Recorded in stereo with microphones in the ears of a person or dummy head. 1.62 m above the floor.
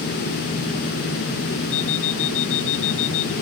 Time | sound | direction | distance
1.7 | an alarm clock | 75° left (ahead or behind) | ?